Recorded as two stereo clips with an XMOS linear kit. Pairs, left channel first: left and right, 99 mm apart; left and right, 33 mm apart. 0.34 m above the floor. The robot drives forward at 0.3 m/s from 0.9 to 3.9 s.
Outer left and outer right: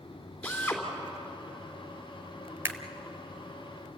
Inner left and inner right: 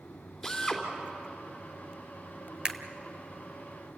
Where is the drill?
10° left (ahead or behind), 3 m.